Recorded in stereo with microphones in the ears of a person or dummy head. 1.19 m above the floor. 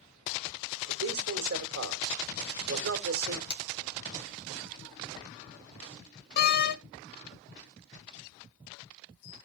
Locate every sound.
0.9 s a man speaking: 70° right (ahead or behind), 1.8 m
3.5 s cutlery clinking: 55° left (ahead or behind), 1.5 m
6.4 s a door slam: 55° left (ahead or behind), 0.7 m